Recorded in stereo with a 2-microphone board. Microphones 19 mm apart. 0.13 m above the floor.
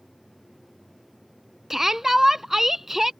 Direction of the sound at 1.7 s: 20° right (ahead or behind).